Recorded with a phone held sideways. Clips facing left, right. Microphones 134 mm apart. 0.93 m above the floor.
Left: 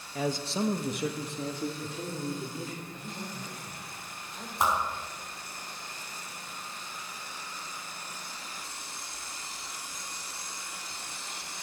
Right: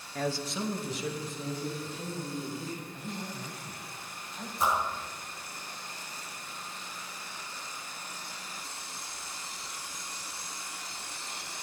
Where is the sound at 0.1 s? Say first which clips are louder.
Left 2 dB; 5° left (ahead or behind), 0.9 m; by 2.8 s 80° left, 3.5 m.